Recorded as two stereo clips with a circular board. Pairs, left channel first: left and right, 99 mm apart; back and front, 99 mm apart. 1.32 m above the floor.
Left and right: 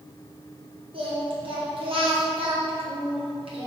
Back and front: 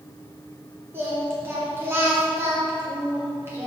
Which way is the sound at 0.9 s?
65° right.